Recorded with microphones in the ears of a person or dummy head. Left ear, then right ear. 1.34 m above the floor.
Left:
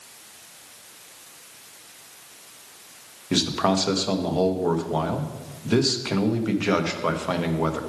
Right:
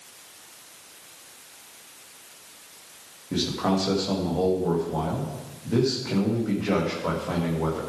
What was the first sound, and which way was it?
A man speaking, 80° left.